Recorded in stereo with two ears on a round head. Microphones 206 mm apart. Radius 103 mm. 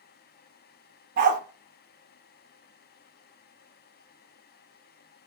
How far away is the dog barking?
About 0.5 m.